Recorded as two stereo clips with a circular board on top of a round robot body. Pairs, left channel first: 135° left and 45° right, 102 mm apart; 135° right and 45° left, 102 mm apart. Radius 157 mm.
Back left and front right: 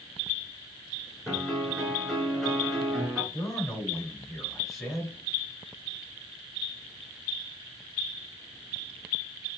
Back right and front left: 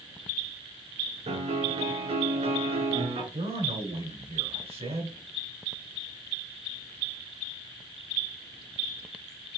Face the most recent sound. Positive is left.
turn(degrees=45)